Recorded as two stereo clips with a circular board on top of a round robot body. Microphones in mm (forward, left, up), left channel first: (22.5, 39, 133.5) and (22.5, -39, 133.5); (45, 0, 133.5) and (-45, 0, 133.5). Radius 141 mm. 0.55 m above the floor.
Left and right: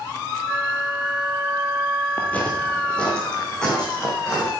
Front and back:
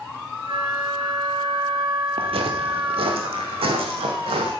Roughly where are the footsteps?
Behind.